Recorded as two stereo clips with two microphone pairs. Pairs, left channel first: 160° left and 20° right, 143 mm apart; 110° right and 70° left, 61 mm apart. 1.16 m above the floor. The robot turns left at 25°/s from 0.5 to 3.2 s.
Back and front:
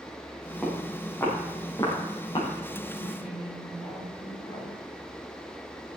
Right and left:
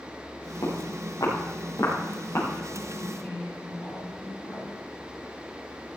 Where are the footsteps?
115° right, 5.5 m; by 2.5 s 150° right, 6 m.